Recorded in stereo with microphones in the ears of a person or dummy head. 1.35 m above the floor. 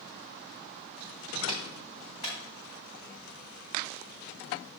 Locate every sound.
1.5 s a clap: 30° left (ahead or behind), 4 m